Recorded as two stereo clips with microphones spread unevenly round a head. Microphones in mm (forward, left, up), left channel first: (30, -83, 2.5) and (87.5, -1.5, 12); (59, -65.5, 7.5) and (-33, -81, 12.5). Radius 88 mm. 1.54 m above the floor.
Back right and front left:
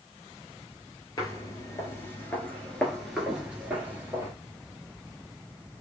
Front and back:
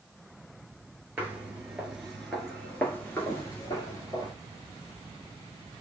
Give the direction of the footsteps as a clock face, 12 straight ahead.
4 o'clock.